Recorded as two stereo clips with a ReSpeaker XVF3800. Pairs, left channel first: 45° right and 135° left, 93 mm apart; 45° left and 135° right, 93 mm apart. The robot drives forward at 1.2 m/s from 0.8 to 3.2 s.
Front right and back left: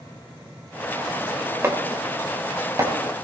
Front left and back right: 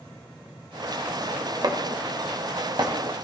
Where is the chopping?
165° right, 2 m; by 2.9 s 170° right, 3.5 m.